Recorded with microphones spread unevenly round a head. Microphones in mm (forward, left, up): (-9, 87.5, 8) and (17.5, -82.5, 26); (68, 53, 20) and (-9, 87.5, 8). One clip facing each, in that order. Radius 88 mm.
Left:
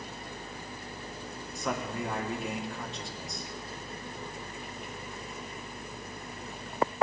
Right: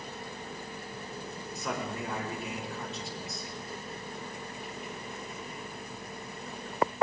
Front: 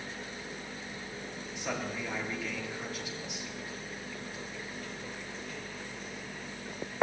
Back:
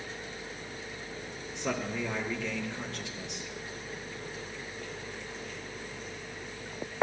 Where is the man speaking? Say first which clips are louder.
Left 2 dB, back 3 dB; 170° right, 5.5 m.